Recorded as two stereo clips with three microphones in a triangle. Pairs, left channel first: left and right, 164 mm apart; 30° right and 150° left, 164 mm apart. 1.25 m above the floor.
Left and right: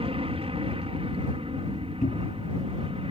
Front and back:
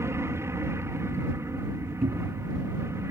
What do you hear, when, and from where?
0.0 s an aircraft: 140° right
2.0 s a cupboard door: 125° left